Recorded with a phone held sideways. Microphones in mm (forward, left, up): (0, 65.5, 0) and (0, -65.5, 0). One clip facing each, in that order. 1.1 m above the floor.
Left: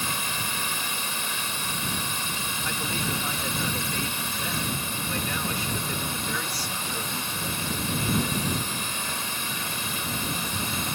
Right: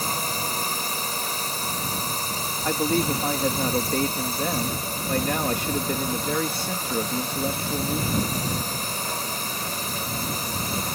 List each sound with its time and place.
0.0 s a drone: 40° right (ahead or behind)
2.6 s a man speaking: 55° right (ahead or behind)